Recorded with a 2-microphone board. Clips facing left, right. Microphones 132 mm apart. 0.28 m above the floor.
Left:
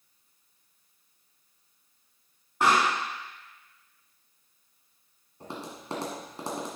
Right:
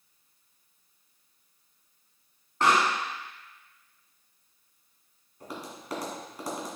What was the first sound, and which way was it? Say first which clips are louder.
A pop: even; 10° left (ahead or behind).